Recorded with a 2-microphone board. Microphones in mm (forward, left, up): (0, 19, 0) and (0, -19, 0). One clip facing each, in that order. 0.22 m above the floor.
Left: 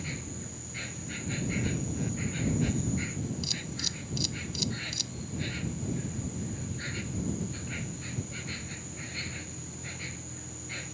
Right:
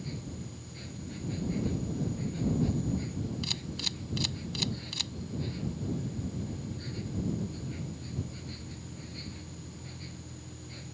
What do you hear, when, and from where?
0.0 s an insect: 70° left (ahead or behind)
3.4 s a camera shutter: 40° right (ahead or behind)